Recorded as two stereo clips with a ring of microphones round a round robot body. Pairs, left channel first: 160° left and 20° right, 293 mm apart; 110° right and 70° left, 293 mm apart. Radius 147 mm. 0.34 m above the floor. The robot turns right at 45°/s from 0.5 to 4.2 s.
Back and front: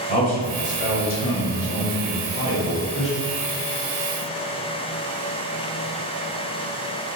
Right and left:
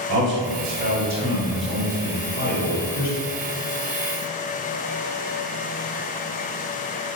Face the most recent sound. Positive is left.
turn(degrees=-90)